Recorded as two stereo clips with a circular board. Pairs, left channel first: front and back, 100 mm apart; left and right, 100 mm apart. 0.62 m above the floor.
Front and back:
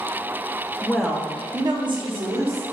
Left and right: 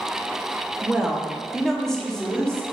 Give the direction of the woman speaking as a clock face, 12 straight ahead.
1 o'clock.